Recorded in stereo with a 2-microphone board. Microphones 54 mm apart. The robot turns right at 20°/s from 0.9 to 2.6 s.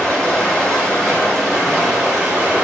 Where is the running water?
175° left, 1.8 m; by 2.6 s 155° right, 1.8 m.